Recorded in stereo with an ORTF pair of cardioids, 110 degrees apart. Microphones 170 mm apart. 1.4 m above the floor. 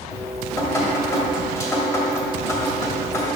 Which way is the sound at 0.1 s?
15° left.